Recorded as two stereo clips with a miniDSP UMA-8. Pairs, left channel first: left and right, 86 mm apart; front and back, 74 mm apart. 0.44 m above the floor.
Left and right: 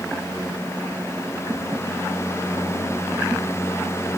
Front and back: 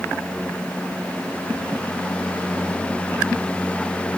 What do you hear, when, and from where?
Only background noise.